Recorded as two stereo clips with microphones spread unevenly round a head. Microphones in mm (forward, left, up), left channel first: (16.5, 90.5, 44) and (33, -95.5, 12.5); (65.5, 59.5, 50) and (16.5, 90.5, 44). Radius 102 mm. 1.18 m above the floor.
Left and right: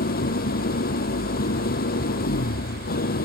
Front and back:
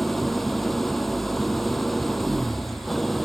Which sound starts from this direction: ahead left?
An engine running, at 0.0 s.